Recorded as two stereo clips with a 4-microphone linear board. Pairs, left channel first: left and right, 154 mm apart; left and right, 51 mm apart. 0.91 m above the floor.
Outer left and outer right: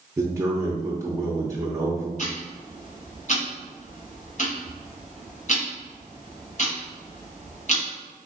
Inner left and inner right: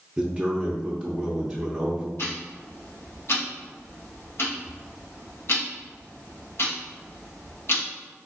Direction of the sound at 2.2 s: 50° left (ahead or behind).